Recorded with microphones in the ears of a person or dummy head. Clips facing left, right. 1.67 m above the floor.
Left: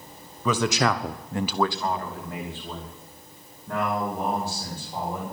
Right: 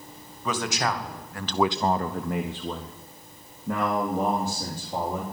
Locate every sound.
0.5 s a man speaking: 75° left (ahead or behind), 1.4 m; by 5.2 s 70° right (ahead or behind), 4.5 m